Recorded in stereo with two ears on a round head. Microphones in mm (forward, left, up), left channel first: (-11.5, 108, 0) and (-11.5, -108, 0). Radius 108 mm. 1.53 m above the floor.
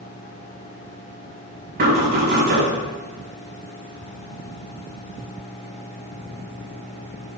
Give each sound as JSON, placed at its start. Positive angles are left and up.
{"t": 1.8, "sound": "knocking", "side_deg": -45, "distance_m": 5.0}